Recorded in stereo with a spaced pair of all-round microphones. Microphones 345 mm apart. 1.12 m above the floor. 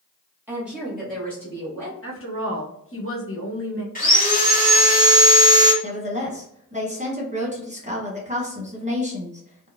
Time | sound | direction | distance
0.5 | a woman speaking | 5° right (ahead or behind) | 1.4 m
2.0 | a woman speaking | 40° left (ahead or behind) | 1.1 m
4.0 | sawing | 25° left (ahead or behind) | 1.7 m
5.8 | a woman speaking | 20° right (ahead or behind) | 1.2 m